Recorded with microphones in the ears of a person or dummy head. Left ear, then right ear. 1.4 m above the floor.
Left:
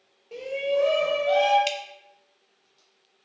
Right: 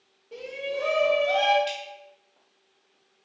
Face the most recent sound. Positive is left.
turn(degrees=70)  # may be behind; listen again after turning